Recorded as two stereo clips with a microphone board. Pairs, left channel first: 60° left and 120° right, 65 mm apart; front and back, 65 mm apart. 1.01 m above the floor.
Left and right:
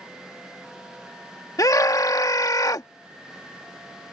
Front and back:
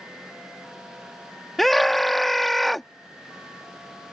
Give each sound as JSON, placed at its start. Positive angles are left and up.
{"t": 1.6, "sound": "a scream", "azimuth_deg": 85}